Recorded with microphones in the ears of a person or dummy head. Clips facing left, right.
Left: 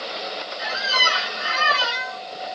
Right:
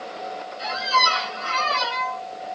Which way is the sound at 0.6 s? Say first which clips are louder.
Right 5 dB; 25° left (ahead or behind).